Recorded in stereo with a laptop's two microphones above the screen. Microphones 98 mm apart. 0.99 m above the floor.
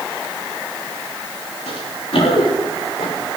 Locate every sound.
1.7 s running footsteps: 75° left (ahead or behind), 8.5 m; by 3.1 s 70° left (ahead or behind), 9.5 m